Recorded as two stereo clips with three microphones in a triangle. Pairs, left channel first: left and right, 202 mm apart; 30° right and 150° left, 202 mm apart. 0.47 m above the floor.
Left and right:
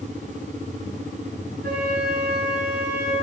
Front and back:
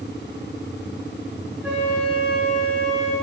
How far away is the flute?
About 1.2 m.